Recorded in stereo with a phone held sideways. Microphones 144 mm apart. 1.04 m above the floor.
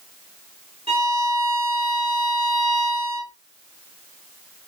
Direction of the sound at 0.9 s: 45° right (ahead or behind).